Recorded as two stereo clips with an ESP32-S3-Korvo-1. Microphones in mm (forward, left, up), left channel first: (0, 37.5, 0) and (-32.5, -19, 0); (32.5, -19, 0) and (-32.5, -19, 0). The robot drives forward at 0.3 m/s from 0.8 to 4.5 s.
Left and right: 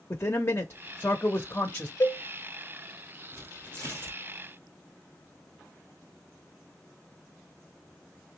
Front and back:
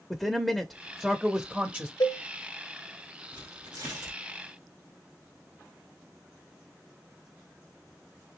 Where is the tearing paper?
170° right, 1.9 m.